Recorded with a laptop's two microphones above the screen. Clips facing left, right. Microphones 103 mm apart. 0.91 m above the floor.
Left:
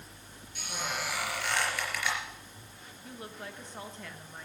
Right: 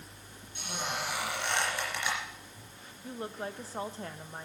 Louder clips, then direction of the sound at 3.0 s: Right 6 dB; 35° right (ahead or behind).